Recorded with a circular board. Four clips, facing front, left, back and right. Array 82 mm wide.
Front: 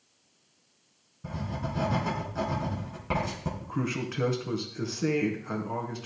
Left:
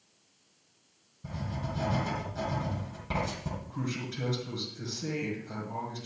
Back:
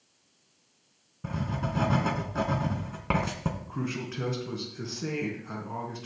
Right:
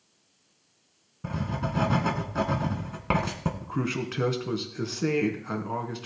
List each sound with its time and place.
1.2 s writing: 120° right, 2.5 m
3.6 s a man speaking: 70° right, 3 m